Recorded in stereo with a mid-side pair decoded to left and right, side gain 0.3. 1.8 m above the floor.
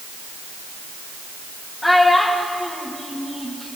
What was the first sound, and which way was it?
A child speaking, 25° left.